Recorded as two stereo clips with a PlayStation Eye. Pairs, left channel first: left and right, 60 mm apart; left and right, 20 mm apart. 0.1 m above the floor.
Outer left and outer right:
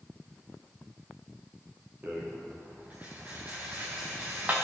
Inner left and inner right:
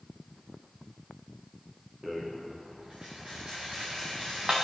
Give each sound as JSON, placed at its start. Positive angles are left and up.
{"t": 2.0, "sound": "a rattle", "side_deg": -30, "distance_m": 3.5}